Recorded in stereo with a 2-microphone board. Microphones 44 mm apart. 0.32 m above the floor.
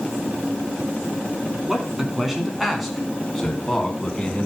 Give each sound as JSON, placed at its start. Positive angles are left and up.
{"t": 1.7, "sound": "a man speaking", "side_deg": -15, "distance_m": 3.5}